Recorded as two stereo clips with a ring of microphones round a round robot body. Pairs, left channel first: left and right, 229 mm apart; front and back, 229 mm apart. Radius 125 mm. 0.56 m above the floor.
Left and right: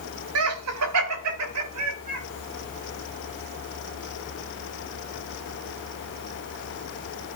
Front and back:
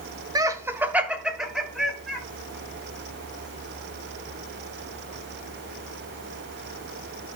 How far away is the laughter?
About 1.3 m.